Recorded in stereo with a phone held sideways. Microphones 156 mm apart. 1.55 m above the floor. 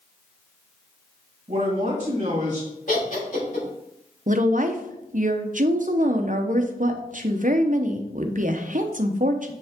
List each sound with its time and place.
1.5 s a man speaking: 50° right (ahead or behind), 2.5 m
2.9 s laughter: 55° left (ahead or behind), 3.5 m
4.3 s a woman speaking: 55° right (ahead or behind), 0.8 m